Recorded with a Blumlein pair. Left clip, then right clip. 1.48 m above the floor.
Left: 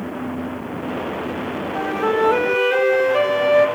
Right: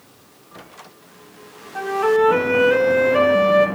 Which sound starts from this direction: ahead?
A flute, at 1.8 s.